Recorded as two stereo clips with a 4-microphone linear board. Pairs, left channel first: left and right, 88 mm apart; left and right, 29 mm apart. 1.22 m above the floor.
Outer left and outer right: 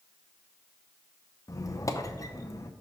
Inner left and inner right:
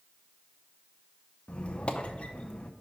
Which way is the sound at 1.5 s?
40° left (ahead or behind).